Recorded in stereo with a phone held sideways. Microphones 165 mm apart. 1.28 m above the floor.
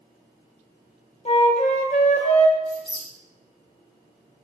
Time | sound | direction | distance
1.2 | a flute | 40° left (ahead or behind) | 0.9 m
2.6 | a squeak | 25° right (ahead or behind) | 2.5 m